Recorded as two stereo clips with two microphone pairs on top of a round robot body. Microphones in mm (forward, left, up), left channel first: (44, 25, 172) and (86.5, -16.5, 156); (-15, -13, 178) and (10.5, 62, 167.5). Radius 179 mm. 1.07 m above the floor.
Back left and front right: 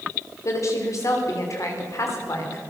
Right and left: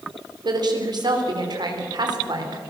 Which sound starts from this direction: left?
A woman speaking, at 0.5 s.